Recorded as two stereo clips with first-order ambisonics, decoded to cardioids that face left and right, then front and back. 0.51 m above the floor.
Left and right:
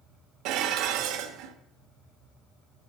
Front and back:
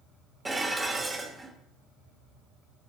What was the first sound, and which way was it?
Dishes clattering, 105° right.